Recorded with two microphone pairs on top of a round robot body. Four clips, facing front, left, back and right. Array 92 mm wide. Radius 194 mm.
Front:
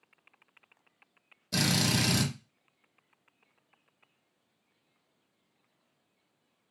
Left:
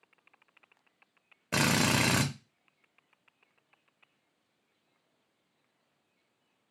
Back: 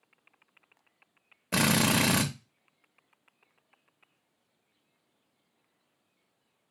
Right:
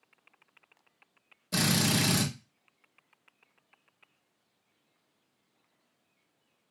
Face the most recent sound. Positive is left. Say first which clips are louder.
# left 1 dB, back 4 dB
turn(degrees=140)